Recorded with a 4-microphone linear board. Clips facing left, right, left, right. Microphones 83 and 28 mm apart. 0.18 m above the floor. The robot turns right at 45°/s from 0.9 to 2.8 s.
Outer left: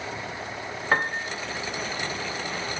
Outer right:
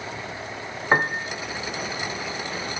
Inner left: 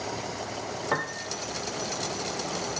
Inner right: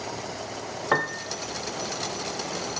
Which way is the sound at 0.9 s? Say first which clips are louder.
Outer right 3 dB, inner right 5 dB; 20° right (ahead or behind).